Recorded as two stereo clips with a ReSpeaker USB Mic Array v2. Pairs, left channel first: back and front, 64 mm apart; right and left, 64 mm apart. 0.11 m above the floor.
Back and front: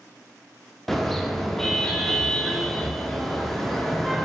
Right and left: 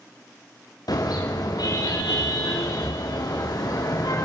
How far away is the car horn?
About 7 m.